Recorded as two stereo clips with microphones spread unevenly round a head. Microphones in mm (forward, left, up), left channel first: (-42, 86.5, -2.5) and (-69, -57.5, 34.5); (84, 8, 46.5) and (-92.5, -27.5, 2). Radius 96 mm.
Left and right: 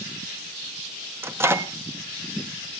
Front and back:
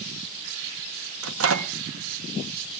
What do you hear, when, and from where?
1.2 s a microwave: 175° right, 1.2 m